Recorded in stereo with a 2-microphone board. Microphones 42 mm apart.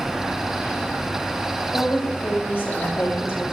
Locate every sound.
1.7 s a woman speaking: 75° left (ahead or behind), 6 m